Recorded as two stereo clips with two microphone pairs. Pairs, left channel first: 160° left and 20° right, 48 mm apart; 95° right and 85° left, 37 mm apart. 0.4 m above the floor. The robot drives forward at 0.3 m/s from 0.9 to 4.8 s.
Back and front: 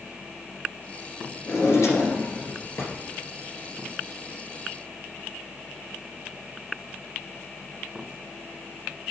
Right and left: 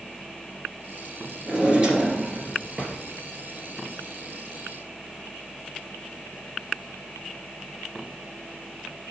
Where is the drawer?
140° left, 3 m; by 2.9 s 145° left, 3 m.